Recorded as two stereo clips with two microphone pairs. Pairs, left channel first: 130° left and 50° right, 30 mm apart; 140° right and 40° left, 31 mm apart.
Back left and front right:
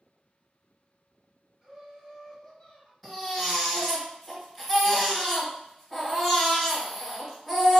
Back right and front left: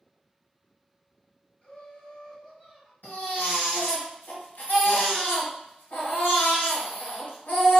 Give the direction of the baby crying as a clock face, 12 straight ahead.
5 o'clock.